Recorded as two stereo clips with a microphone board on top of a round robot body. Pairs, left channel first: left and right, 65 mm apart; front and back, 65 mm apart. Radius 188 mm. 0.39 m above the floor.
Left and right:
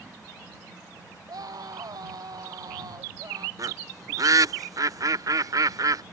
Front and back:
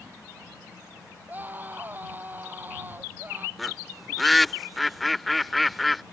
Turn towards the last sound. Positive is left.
turn(degrees=-90)